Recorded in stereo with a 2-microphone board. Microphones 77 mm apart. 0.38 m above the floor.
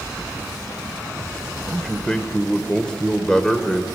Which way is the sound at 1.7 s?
10° left (ahead or behind).